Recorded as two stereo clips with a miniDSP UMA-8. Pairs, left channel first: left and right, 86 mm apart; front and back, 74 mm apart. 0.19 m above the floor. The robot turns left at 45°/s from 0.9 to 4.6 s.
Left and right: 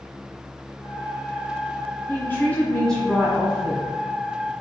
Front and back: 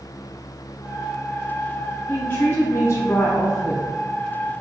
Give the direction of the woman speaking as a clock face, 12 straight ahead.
10 o'clock.